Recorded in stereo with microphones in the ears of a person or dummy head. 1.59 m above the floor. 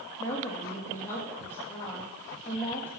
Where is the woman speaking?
15° left (ahead or behind), 2.0 m.